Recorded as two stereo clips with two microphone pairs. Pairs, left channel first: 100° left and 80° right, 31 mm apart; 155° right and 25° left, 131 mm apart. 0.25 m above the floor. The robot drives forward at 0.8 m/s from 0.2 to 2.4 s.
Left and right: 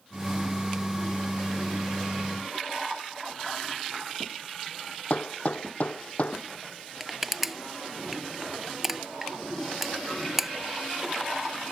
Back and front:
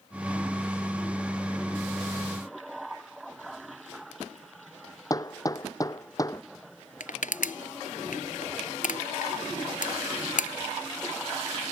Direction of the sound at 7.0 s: 155° right.